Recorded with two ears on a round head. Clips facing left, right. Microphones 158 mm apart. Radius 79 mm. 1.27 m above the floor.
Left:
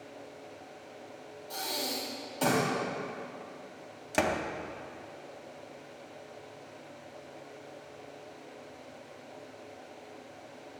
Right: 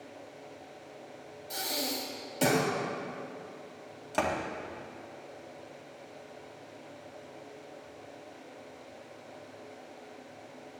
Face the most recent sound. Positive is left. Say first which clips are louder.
# left 1 dB
turn(degrees=20)  # may be behind; listen again after turning